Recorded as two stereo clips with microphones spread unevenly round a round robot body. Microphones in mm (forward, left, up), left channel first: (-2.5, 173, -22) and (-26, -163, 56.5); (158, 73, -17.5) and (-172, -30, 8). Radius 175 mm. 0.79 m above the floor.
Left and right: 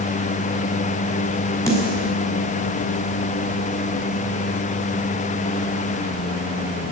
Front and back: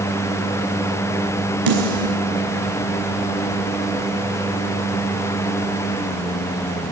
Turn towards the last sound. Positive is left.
turn(degrees=165)